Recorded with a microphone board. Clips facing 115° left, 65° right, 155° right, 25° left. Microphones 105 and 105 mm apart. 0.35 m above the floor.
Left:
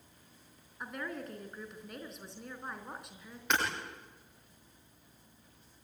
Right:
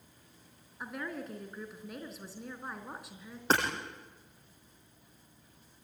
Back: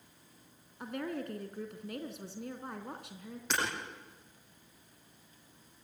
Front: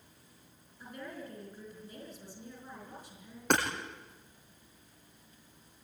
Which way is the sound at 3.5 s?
10° right.